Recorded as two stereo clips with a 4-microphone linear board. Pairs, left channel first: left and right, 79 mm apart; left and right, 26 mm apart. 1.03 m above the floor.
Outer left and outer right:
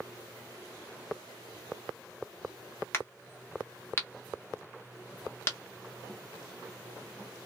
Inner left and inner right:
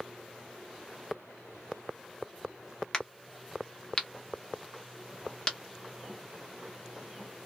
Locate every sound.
2.9 s a crack: 30° left (ahead or behind), 1.1 m